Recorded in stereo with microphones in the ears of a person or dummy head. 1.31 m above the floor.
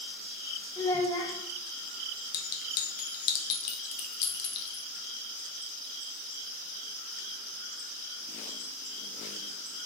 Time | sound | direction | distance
0.8 | a child speaking | 25° left (ahead or behind) | 0.7 m
2.3 | a clink | 55° left (ahead or behind) | 0.5 m